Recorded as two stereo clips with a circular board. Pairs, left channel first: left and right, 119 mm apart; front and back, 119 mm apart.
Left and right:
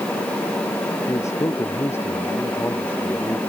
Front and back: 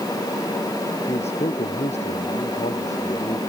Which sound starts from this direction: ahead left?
A man speaking, at 1.1 s.